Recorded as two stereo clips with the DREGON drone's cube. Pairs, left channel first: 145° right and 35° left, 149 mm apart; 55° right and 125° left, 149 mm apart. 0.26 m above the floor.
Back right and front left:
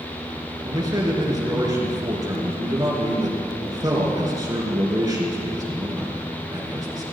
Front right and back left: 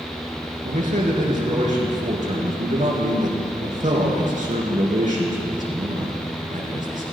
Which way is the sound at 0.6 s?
95° left.